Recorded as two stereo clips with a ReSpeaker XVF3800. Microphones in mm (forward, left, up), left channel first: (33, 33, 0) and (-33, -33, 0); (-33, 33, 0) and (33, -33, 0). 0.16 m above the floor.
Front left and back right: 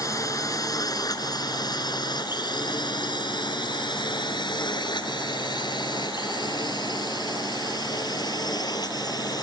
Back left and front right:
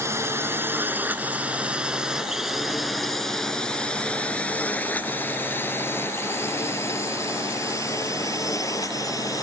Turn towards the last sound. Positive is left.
turn(degrees=85)